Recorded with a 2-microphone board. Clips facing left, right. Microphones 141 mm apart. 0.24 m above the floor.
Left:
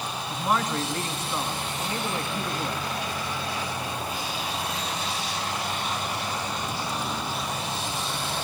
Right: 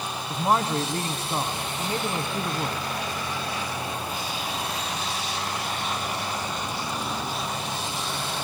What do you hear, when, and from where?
0.3 s a man speaking: 35° right (ahead or behind), 2.5 m